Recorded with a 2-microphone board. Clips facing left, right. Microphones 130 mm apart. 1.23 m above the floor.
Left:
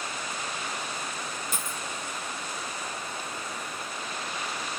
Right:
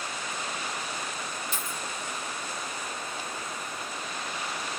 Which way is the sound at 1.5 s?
45° left (ahead or behind).